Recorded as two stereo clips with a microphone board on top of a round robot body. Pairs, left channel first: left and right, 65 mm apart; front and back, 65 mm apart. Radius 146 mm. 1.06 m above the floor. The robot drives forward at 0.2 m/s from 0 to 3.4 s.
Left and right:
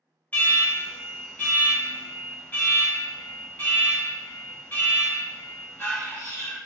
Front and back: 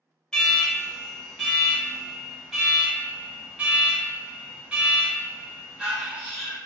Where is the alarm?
70° left, 1.4 m; by 6.6 s 120° left, 1.5 m.